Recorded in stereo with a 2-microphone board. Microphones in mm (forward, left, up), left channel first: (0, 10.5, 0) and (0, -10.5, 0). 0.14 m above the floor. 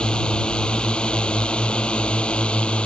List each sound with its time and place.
0.0 s a drone: 50° left (ahead or behind); by 2.9 s 60° left (ahead or behind)